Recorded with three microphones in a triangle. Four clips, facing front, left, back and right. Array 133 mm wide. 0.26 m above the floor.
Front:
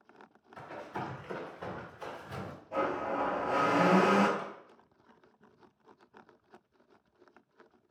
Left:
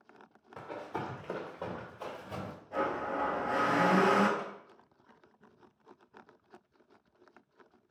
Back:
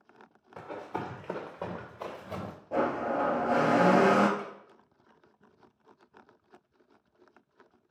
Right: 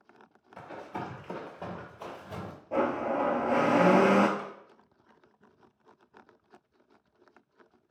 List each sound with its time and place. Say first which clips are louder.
0.6 s running footsteps: even, back 3 dB; 155° left, 2 m; by 2.5 s straight behind, 1.8 m
2.7 s a blender: right 5 dB, back 4 dB; 130° right, 0.8 m
4.4 s a snare drum: right 1 dB, back 1 dB; 40° right, 1.3 m